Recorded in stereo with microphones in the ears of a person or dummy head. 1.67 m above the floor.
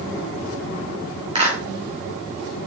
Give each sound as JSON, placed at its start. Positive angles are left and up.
{"t": 1.4, "sound": "a clap", "side_deg": -25, "distance_m": 3.0}